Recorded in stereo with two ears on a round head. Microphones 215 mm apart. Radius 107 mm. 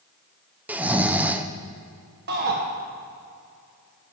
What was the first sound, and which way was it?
Snoring, 5° right (ahead or behind).